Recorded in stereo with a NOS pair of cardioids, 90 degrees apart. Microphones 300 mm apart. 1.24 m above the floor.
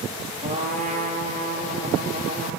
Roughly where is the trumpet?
Ahead right.